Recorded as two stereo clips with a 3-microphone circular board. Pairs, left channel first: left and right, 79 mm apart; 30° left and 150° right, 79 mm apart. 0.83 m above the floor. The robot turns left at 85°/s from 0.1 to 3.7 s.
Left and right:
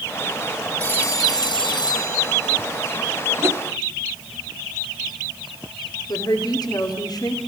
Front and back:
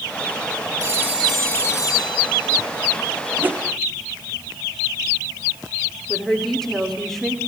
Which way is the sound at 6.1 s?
115° left.